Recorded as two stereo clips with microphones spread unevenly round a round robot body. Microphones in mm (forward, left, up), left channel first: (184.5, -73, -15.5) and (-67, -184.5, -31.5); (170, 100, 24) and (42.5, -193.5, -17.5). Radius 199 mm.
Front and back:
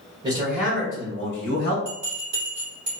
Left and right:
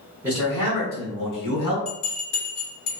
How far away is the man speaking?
About 0.9 m.